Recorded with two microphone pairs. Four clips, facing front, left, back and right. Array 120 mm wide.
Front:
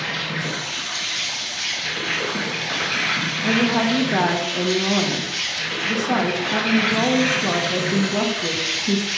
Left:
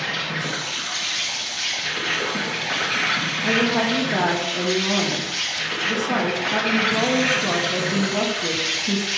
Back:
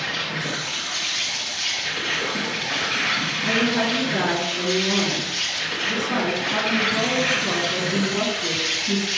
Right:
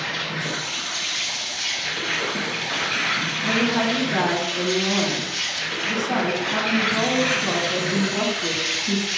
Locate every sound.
0.0 s an insect: 65° left, 2.5 m
3.4 s a woman speaking: 30° left, 1.3 m